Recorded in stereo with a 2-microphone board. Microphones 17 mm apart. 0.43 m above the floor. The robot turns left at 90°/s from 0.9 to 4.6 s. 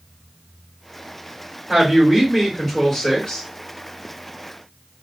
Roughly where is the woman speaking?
Right.